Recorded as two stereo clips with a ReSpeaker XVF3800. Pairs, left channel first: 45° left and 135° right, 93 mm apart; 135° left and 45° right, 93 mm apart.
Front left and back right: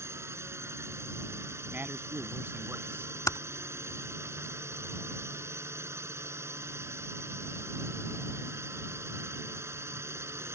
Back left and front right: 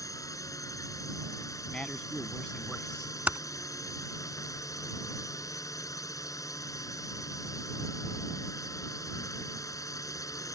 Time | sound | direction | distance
0.0 | a drone | 175° left | ?
1.7 | a man speaking | 160° right | ?
3.3 | typing on a keyboard | 20° left | ?